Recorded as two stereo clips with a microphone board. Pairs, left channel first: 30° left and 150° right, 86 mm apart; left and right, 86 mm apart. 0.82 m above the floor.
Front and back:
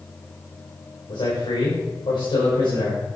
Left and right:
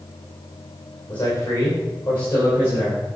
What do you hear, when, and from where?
1.1 s a man speaking: 30° left, 3 m; by 3.2 s 20° left, 4.5 m